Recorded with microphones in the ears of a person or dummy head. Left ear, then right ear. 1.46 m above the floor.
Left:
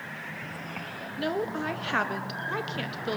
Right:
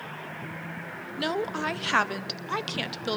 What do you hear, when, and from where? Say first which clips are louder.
1.2 s a woman speaking: right 1 dB; 25° right (ahead or behind), 0.9 m